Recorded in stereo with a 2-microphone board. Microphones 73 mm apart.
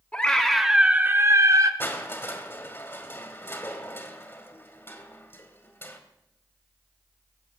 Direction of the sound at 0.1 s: 20° left (ahead or behind).